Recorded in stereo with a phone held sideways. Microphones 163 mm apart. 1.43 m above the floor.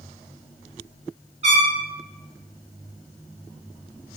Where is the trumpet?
40° right (ahead or behind), 1.4 m.